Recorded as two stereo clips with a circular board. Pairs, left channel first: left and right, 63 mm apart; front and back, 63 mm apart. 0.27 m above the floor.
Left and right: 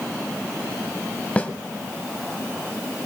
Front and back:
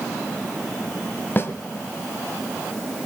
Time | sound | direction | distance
1.4 | a snare drum | 30° left | 1.3 m